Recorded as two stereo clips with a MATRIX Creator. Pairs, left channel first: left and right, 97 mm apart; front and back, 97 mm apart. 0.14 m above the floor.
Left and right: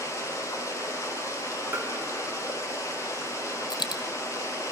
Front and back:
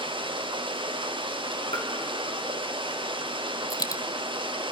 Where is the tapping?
25° right, 4.5 m.